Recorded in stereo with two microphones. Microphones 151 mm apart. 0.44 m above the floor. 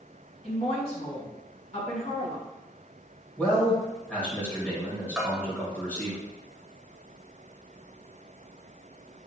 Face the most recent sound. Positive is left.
turn(degrees=-5)  # may be behind; listen again after turning